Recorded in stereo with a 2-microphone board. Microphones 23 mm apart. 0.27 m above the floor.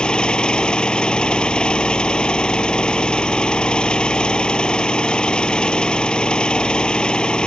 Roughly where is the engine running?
Left.